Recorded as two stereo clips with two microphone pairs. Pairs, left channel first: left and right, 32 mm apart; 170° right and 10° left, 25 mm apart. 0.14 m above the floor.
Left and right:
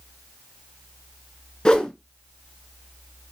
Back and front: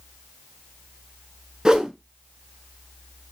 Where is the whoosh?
50° left, 0.5 m.